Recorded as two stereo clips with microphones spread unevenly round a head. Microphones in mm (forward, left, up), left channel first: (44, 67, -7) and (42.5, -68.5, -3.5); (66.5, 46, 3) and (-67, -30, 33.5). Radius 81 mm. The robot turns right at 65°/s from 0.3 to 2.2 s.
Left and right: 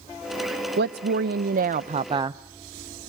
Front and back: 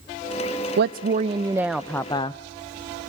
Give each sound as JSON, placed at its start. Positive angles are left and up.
{"t": 0.8, "sound": "a woman speaking", "azimuth_deg": -125, "distance_m": 0.5}